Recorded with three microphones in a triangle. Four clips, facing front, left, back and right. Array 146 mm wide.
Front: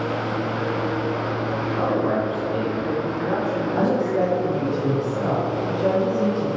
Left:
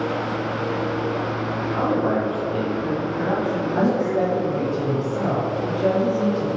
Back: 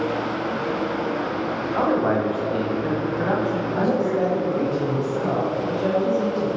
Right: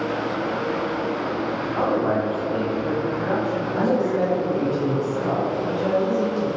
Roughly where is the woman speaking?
Ahead left.